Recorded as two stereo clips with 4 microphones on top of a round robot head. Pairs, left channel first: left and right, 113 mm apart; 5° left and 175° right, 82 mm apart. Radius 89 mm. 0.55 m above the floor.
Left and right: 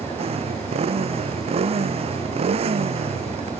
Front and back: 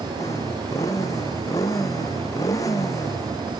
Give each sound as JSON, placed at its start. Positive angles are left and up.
{"t": 0.0, "sound": "a motorcycle", "azimuth_deg": -55}